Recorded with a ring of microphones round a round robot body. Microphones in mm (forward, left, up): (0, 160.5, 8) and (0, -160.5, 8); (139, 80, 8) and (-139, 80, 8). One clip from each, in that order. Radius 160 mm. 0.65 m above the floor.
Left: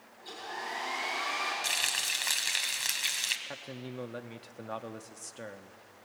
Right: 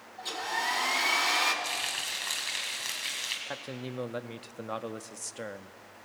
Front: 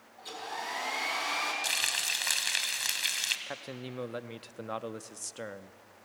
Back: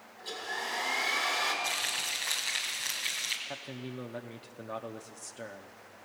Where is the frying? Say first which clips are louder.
Left 2 dB, front 2 dB; 25° left, 2 m.